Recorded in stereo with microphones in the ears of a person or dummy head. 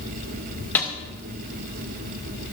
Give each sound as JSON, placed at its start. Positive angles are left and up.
{"t": 0.8, "sound": "a snare drum", "side_deg": 10, "distance_m": 1.4}